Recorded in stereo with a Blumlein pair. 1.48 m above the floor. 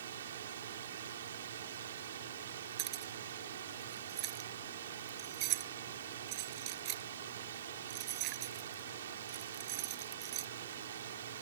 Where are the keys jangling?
40° right.